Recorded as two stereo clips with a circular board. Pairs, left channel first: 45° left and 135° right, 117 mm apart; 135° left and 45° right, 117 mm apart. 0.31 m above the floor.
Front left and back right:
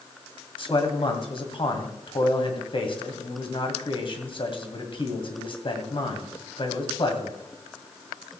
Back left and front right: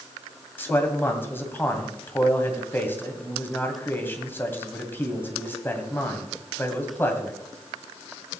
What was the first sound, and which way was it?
A man speaking, 65° left.